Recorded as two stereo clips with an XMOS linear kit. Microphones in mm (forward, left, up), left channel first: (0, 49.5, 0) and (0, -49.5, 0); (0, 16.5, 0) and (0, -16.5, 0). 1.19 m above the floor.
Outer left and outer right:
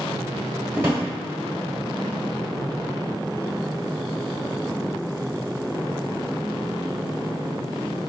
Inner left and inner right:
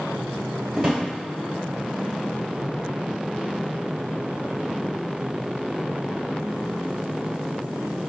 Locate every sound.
0.7 s a drawer: 20° right (ahead or behind), 1.1 m